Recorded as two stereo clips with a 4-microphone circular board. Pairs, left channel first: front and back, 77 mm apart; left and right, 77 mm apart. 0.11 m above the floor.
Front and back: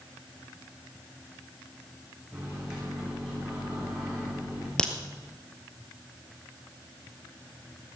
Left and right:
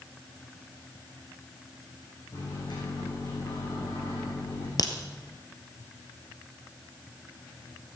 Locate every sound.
2.3 s a microwave: 100° left, 7 m
4.8 s a crack: 80° left, 1.8 m